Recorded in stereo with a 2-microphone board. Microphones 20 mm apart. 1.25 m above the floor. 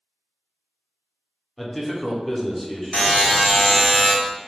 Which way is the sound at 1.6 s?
5° left (ahead or behind).